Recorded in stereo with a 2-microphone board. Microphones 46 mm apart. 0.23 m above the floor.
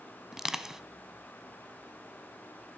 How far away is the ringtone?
No ringtone in this recording.